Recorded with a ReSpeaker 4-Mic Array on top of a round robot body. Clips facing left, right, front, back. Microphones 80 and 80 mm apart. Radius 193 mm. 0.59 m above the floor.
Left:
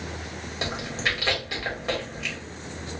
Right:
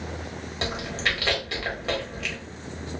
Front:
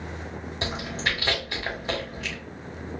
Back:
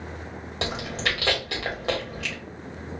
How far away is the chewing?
About 2 m.